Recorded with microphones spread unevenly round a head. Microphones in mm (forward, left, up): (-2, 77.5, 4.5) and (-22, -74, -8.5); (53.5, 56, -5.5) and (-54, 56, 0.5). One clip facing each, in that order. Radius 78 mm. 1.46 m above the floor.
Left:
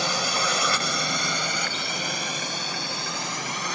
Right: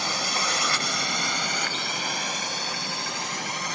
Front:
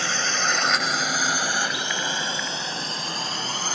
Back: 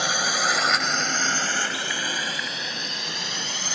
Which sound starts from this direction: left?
A drone, at 0.0 s.